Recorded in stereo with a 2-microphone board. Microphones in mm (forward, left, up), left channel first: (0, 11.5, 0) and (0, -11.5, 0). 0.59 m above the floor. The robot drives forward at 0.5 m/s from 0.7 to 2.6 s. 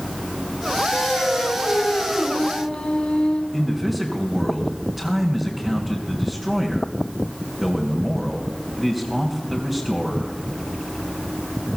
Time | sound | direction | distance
0.9 | singing | 55° left (ahead or behind) | 5 m
3.5 | a man speaking | 5° right (ahead or behind) | 3 m